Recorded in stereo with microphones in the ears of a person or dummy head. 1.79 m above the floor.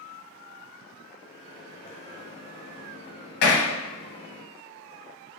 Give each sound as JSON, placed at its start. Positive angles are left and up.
{"t": 1.2, "sound": "a microwave", "side_deg": 30, "distance_m": 0.8}
{"t": 3.4, "sound": "hammering", "side_deg": 60, "distance_m": 0.9}